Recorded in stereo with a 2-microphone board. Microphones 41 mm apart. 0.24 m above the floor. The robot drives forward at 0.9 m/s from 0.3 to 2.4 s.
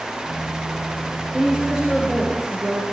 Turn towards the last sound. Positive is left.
turn(degrees=-20)  # may be behind; listen again after turning